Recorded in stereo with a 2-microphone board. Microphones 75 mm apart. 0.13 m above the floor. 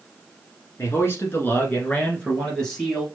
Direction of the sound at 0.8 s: 40° left (ahead or behind).